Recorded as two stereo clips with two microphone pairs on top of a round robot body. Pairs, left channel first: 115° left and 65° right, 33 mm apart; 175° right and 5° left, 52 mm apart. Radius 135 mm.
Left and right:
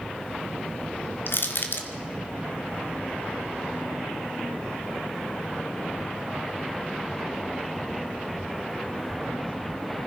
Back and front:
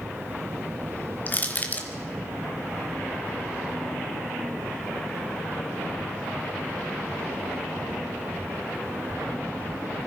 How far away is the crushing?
About 1.2 m.